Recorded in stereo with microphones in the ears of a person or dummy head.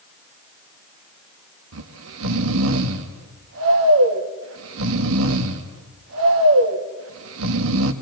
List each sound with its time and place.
1.7 s snoring: 80° right, 1.9 m